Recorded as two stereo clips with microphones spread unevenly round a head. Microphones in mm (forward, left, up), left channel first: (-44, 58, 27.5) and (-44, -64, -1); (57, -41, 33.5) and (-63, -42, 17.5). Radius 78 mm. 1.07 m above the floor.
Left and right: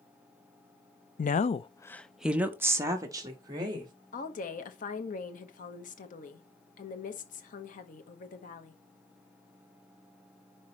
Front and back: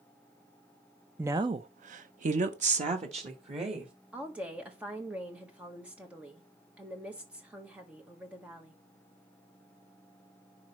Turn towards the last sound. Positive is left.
turn(degrees=105)